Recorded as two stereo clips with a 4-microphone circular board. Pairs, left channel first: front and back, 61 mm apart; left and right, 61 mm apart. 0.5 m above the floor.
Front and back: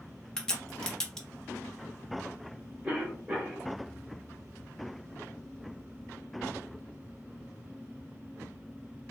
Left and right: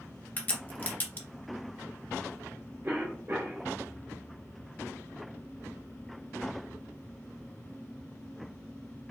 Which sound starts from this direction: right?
A cough, at 2.8 s.